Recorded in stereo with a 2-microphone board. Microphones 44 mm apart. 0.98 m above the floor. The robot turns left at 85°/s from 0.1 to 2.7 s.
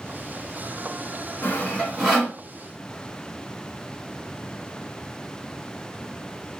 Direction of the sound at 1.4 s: 45° left (ahead or behind).